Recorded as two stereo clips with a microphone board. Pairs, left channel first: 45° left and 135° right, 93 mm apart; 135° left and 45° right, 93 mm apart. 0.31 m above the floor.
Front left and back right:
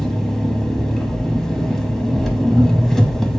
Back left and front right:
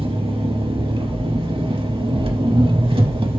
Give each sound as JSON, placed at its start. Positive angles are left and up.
{"t": 0.0, "sound": "an engine running", "azimuth_deg": -40, "distance_m": 0.7}